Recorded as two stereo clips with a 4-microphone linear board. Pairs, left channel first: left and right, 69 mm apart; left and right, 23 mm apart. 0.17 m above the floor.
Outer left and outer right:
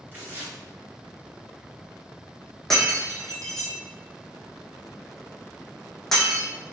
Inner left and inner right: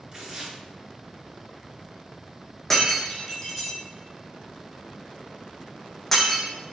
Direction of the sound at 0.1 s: 30° right (ahead or behind).